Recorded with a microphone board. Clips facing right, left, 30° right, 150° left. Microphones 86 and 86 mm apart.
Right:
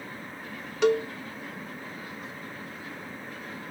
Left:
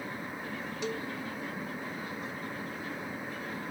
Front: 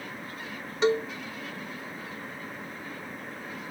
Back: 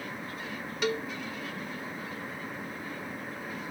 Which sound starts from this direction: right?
A cowbell, at 0.8 s.